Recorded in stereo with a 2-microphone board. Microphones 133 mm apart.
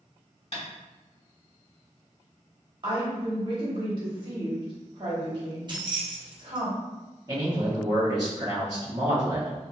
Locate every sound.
0.5 s tapping: 60° left (ahead or behind), 1.4 m
2.8 s a woman speaking: 40° right (ahead or behind), 1.2 m
5.7 s keys jangling: 35° right (ahead or behind), 0.6 m
7.3 s a man speaking: 30° right (ahead or behind), 0.8 m